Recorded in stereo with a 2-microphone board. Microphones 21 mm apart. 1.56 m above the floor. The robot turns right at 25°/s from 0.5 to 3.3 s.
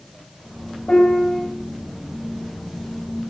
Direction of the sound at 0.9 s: 50° left (ahead or behind).